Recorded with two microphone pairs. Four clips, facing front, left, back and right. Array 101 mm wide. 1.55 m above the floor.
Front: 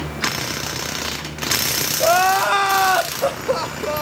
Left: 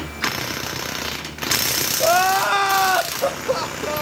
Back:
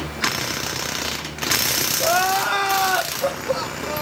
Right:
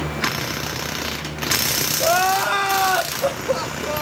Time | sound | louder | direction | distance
2.0 | crying | left 1 dB, front 4 dB | 25° left | 0.9 m